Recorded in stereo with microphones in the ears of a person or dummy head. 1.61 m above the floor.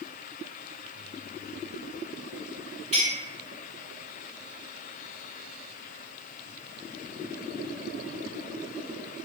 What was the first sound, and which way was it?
A clink, 40° right (ahead or behind).